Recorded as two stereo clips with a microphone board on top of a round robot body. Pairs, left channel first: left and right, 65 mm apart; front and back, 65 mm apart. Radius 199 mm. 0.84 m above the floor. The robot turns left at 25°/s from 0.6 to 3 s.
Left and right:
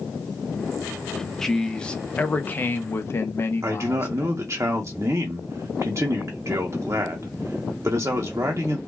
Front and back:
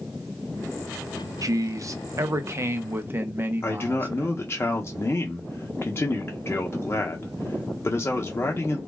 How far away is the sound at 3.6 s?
About 0.7 m.